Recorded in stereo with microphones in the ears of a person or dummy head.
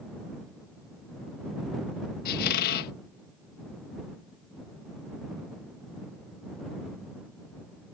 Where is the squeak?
50° left (ahead or behind).